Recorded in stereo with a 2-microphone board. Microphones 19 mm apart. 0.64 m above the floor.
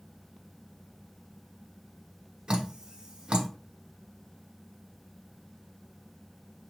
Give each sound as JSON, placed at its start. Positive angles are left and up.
{"t": 2.5, "sound": "dripping", "side_deg": -70, "distance_m": 0.6}